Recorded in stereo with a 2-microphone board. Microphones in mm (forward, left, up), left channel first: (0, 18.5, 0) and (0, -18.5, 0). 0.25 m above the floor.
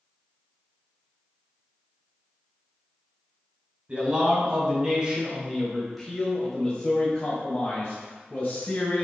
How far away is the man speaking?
About 1.8 m.